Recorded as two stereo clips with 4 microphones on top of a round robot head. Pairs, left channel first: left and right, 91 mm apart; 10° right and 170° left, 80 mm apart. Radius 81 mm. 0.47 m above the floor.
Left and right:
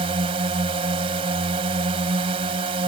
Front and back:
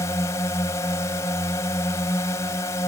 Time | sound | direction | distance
0.0 | a drone | 65° right | ?